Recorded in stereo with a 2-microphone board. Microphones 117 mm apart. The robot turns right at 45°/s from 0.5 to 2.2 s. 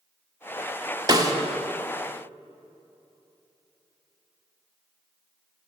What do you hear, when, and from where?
1.1 s a snare drum: 35° right (ahead or behind), 0.9 m; by 1.3 s 30° right (ahead or behind), 0.9 m